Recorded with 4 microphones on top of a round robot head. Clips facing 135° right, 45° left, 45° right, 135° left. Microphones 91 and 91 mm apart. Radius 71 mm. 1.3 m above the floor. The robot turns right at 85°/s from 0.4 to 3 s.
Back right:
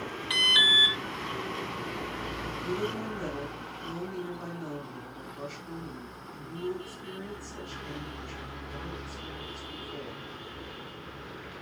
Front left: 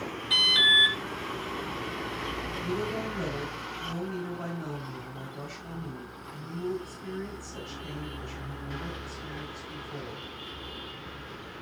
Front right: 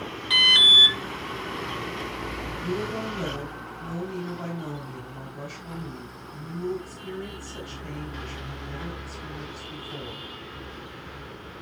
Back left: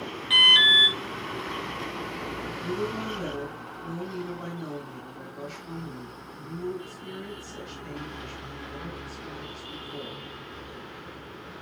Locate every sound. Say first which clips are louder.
0.3 s an alarm: front left 1 dB, back left 2 dB; 115° right, 2 m; by 1.0 s 65° right, 2 m
2.6 s a woman speaking: front left 1 dB, front right 1 dB; 30° right, 4 m; by 10.2 s 5° left, 4 m